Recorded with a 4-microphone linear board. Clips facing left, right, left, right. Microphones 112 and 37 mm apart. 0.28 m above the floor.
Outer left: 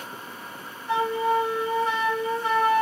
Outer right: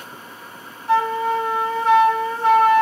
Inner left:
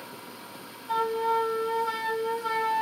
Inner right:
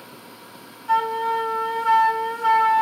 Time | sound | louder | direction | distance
0.9 | a flute | outer right 4 dB, inner right 5 dB | 80° right | 0.9 m